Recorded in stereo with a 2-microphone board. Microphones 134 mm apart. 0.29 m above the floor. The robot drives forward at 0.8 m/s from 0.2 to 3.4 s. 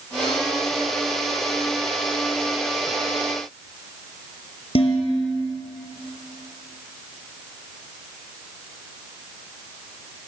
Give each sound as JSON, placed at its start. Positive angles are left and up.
{"t": 4.8, "sound": "dishes clattering", "side_deg": 50, "distance_m": 5.0}